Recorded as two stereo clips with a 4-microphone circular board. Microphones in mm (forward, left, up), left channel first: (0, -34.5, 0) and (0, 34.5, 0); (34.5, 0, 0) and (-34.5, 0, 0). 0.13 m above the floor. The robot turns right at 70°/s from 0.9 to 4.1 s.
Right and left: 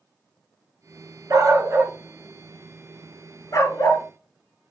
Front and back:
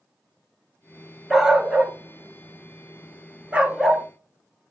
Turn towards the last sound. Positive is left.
turn(degrees=-75)